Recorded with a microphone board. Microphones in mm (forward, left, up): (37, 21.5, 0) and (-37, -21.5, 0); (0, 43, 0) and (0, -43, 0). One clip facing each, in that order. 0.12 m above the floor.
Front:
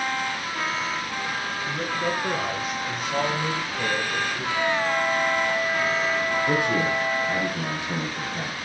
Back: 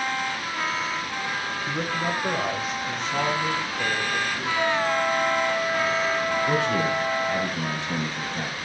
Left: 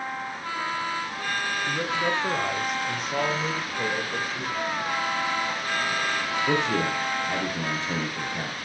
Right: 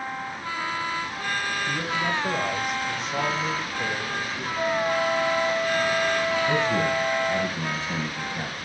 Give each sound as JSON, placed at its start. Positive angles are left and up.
{"t": 1.7, "sound": "a man speaking", "azimuth_deg": 145, "distance_m": 1.8}
{"t": 4.5, "sound": "a flute", "azimuth_deg": 100, "distance_m": 5.5}
{"t": 6.5, "sound": "a man speaking", "azimuth_deg": 105, "distance_m": 3.0}